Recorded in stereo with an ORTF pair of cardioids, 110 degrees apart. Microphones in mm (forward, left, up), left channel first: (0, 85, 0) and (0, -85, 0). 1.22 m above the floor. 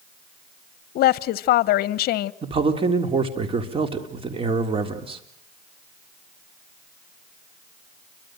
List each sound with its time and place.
0.9 s a woman speaking: 70° left, 0.9 m
2.4 s a man speaking: 35° right, 3.5 m